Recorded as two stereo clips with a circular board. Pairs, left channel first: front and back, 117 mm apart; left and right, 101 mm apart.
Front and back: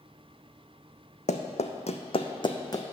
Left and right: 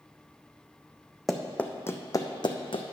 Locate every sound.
1.3 s running footsteps: straight ahead, 0.8 m; by 2.8 s 60° left, 1.0 m